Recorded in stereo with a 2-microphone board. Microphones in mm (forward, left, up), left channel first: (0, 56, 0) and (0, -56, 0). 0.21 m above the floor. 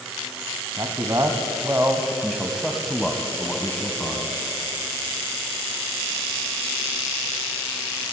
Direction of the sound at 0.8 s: 40° right (ahead or behind).